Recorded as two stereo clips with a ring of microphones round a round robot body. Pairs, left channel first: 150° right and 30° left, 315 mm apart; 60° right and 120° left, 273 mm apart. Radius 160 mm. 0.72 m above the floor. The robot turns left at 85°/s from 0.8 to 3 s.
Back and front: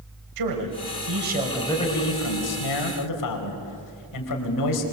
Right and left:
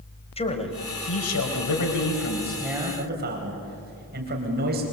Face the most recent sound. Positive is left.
turn(degrees=180)